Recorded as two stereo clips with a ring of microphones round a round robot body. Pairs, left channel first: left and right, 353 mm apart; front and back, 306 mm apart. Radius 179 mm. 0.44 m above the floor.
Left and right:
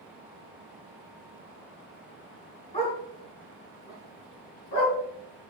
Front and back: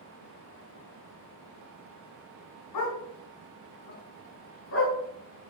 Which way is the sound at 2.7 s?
15° left.